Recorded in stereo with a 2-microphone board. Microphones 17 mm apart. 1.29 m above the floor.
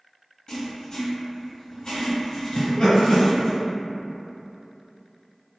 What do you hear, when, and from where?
0.5 s writing: 45° left (ahead or behind), 1.5 m
2.5 s laughter: 65° left (ahead or behind), 1.5 m